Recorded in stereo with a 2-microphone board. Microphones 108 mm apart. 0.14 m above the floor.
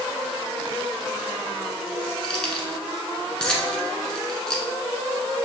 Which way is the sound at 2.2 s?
5° left (ahead or behind).